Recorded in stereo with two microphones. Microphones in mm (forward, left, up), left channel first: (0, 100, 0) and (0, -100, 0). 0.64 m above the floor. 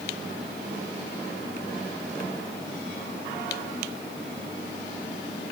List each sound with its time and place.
Only background noise.